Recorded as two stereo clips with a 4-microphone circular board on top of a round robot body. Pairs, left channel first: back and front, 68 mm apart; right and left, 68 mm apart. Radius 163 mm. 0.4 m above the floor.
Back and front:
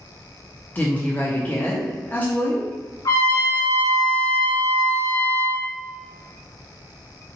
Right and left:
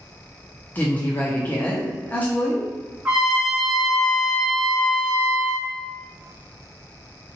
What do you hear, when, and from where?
0.8 s a woman speaking: 140° right, 0.9 m
3.0 s a trumpet: 165° left, 1.3 m